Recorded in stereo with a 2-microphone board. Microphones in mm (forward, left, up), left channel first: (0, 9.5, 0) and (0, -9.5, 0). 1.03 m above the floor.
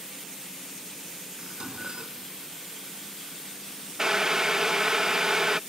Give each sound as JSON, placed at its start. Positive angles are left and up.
{"t": 1.4, "sound": "dishes clattering", "side_deg": -45}
{"t": 4.0, "sound": "boiling", "side_deg": -35}